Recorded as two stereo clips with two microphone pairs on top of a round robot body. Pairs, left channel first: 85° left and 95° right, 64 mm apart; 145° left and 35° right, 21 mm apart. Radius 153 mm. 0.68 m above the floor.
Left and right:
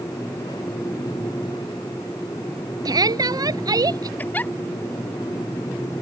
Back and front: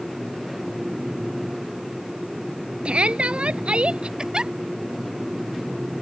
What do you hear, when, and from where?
2.9 s a shout: 70° right; by 4.1 s 65° right
4.2 s a giggle: 15° left